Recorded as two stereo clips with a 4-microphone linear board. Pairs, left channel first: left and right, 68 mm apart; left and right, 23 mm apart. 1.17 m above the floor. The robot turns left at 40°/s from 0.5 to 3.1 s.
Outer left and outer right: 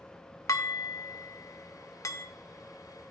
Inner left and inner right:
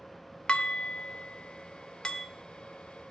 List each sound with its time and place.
0.5 s dishes clattering: 50° left (ahead or behind), 0.7 m; by 2.3 s 40° left (ahead or behind), 0.7 m